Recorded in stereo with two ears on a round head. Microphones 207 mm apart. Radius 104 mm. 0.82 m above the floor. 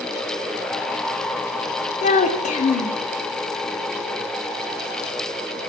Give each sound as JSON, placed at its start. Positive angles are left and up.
{"t": 2.0, "sound": "a child speaking", "side_deg": 35, "distance_m": 0.6}